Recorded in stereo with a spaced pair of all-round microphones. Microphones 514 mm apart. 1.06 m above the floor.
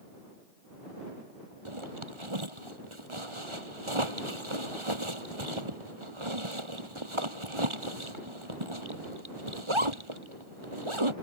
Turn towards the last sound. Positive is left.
turn(degrees=-70)  # may be behind; listen again after turning